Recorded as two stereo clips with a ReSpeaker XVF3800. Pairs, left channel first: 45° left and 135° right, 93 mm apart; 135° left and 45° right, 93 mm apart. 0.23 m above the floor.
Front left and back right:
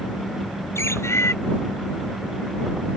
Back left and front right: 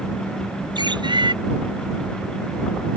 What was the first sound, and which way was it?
A bird, 15° right.